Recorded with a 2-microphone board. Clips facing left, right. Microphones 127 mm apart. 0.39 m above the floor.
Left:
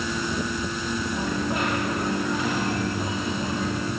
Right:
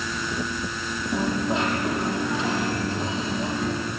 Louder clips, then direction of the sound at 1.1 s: Right 6 dB; 25° right (ahead or behind).